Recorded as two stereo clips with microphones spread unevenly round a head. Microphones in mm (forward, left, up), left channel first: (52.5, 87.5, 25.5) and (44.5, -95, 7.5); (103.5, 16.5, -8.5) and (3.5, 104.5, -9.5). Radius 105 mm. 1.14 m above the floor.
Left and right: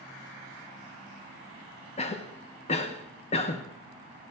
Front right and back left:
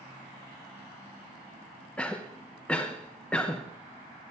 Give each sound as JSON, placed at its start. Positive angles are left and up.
{"t": 2.0, "sound": "a cough", "azimuth_deg": 40, "distance_m": 0.7}